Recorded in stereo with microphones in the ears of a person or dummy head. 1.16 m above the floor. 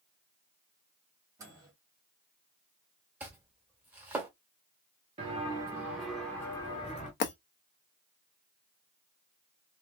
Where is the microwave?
20° right (ahead or behind), 1.6 m.